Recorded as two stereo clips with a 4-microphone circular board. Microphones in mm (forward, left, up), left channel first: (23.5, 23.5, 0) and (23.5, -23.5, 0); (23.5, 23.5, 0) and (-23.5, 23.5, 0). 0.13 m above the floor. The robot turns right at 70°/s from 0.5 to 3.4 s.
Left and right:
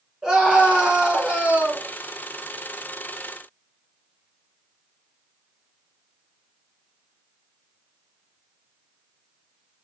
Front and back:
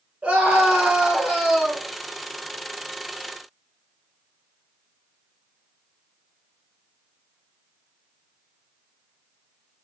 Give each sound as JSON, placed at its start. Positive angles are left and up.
{"t": 0.2, "sound": "a scream", "azimuth_deg": -175, "distance_m": 1.5}